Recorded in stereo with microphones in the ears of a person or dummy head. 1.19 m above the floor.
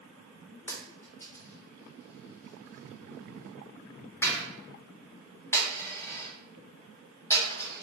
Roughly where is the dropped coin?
Centre.